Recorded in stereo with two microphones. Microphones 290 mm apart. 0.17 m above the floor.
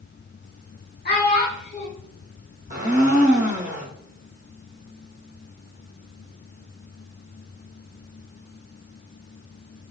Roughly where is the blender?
Right.